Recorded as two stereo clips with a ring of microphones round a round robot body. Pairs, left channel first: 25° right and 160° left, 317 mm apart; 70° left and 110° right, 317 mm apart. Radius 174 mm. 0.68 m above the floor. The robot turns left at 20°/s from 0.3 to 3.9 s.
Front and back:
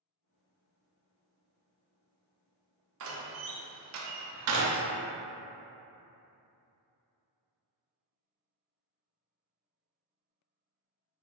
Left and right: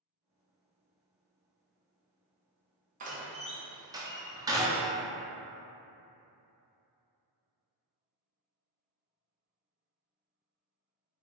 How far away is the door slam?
About 0.5 m.